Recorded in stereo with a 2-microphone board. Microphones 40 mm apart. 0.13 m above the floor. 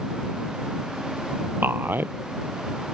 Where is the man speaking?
65° right (ahead or behind).